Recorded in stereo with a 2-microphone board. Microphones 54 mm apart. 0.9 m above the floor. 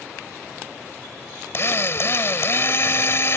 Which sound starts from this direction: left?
A drill, at 1.5 s.